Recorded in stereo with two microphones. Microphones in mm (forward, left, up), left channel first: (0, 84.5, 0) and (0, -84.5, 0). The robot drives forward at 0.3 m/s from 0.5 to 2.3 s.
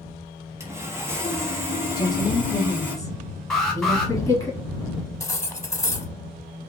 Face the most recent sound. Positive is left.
turn(degrees=20)  # may be behind; listen again after turning